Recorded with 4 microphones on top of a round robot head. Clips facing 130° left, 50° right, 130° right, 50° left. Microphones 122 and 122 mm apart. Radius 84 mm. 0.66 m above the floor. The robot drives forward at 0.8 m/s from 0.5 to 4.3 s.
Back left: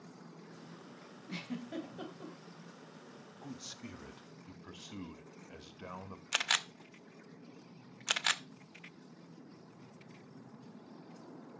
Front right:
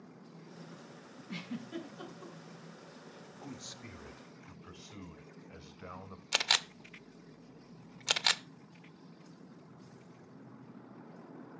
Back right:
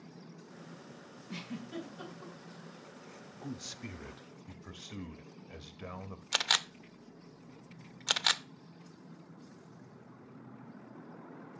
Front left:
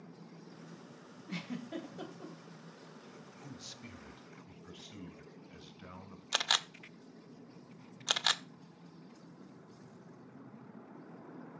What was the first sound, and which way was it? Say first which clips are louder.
A giggle: even, front left 1 dB; 75° left.